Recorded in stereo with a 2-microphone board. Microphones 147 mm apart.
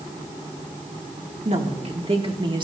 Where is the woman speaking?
50° right (ahead or behind), 2.5 m; by 2.7 s 30° right (ahead or behind), 1.8 m.